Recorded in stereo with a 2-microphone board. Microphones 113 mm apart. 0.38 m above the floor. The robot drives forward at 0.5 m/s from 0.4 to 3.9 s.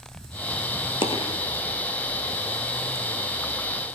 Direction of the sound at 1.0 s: 50° left (ahead or behind).